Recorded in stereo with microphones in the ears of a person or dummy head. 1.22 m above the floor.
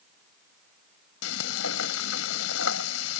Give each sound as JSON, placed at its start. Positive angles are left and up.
{"t": 1.2, "sound": "frying", "side_deg": 85}